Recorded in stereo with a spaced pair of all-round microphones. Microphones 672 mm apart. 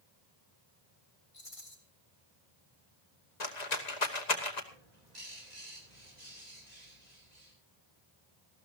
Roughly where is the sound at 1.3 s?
Left.